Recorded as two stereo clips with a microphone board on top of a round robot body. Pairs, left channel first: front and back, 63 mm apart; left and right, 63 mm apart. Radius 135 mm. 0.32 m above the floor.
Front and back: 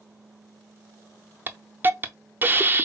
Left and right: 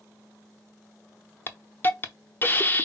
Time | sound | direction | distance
1.5 | a hiss | 135° left | 0.9 m